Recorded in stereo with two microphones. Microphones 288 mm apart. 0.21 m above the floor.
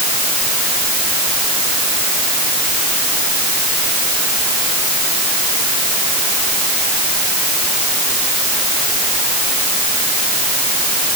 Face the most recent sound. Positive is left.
No sound to turn to.